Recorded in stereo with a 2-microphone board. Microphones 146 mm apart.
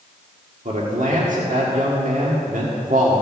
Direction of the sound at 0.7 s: 70° right (ahead or behind).